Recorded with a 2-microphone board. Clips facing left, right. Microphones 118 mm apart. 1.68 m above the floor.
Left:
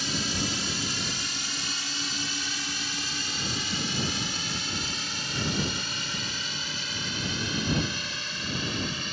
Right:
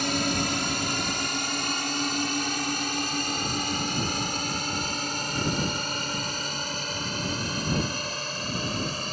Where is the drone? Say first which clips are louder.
Right 5 dB; 60° right (ahead or behind); by 9.1 s 40° right (ahead or behind).